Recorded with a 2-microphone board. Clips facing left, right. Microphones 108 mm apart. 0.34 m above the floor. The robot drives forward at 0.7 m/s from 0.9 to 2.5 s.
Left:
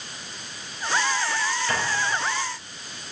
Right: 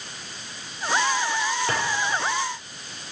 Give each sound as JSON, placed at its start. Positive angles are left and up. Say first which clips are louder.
{"t": 1.7, "sound": "a drawer", "louder": "left 1 dB", "side_deg": -35, "distance_m": 4.0}